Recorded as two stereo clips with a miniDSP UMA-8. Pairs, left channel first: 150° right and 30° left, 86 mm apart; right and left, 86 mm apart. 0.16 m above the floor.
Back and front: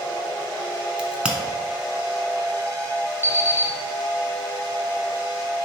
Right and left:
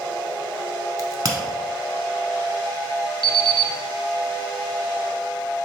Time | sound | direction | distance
1.0 | a crack | 105° left | 0.6 m
3.2 | an alarm clock | 80° left | 0.6 m